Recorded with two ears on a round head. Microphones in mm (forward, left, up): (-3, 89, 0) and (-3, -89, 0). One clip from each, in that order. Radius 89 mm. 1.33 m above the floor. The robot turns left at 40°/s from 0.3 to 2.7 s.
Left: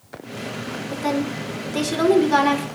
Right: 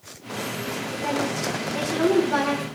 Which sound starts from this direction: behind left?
A woman speaking, at 0.9 s.